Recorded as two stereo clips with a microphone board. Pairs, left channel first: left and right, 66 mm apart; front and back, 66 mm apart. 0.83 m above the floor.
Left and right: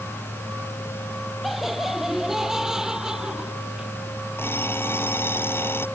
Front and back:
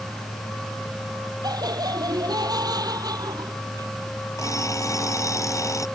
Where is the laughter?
175° right; by 4.0 s 165° right.